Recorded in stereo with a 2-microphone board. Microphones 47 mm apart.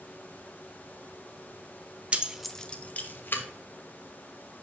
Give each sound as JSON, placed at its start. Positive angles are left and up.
{"t": 2.1, "sound": "keys jangling", "side_deg": -30, "distance_m": 0.6}